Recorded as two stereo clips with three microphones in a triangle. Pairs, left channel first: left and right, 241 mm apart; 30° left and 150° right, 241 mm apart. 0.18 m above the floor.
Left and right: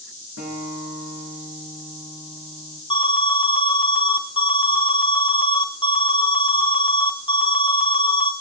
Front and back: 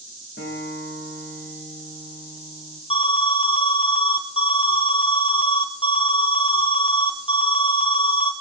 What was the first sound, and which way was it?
A guitar, 75° left.